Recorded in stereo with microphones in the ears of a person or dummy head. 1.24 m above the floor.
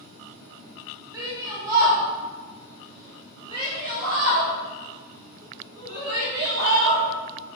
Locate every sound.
1.1 s a shout: 15° right (ahead or behind), 3 m; by 7.0 s 20° right (ahead or behind), 6.5 m